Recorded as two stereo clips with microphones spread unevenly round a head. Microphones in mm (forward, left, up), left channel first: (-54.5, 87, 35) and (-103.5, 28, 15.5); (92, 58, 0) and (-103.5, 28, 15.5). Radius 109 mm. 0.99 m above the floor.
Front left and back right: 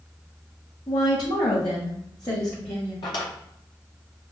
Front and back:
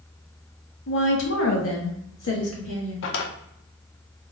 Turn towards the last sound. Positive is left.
turn(degrees=30)